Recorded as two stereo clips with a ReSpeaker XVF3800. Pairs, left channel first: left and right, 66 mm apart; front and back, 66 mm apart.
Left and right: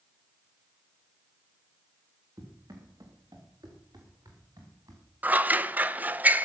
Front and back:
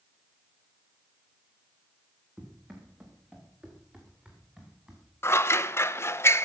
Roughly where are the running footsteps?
Behind right.